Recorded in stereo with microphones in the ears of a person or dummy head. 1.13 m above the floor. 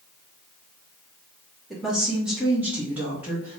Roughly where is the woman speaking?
Centre.